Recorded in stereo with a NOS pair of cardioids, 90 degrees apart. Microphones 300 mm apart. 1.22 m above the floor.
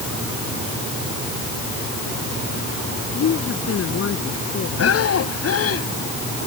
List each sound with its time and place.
3.1 s a woman speaking: 50° left
4.8 s breathing: 50° left